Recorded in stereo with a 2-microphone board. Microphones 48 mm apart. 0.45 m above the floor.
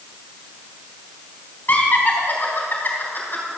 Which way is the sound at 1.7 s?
45° left (ahead or behind).